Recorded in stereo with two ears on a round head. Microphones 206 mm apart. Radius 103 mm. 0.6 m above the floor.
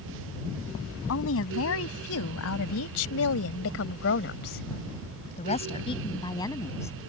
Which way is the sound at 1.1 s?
65° left (ahead or behind).